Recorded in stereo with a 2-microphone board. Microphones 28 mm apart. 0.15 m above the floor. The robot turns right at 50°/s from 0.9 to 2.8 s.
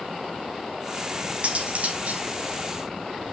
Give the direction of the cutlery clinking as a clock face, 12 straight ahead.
4 o'clock.